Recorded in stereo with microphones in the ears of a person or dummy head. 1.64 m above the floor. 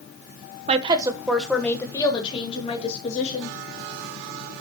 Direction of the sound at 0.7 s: 35° right (ahead or behind).